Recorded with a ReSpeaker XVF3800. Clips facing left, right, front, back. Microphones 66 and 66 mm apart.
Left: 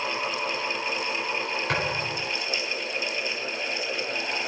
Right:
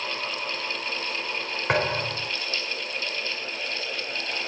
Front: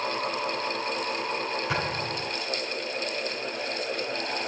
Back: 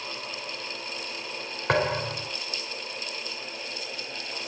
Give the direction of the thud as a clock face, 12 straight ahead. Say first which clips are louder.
Right 6 dB, back 4 dB; 5 o'clock.